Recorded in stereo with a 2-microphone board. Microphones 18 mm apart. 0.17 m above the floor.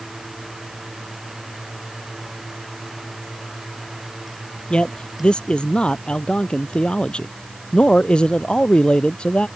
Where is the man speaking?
75° left (ahead or behind).